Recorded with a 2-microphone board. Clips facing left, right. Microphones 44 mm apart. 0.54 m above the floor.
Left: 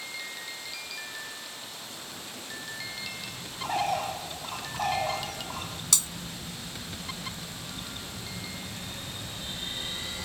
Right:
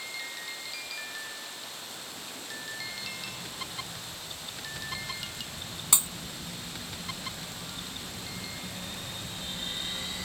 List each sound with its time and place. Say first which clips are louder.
3.6 s a bird: left 13 dB; 80° left
5.9 s breaking glass: right 1 dB; 20° right (ahead or behind)